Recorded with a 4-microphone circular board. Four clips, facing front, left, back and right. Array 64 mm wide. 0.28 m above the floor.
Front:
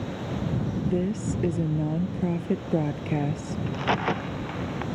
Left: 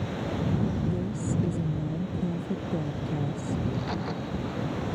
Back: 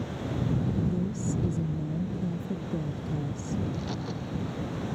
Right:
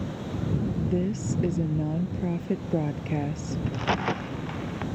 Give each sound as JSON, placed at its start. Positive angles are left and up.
{"t": 0.8, "sound": "a woman speaking", "azimuth_deg": -30}
{"t": 3.7, "sound": "a crack", "azimuth_deg": -30}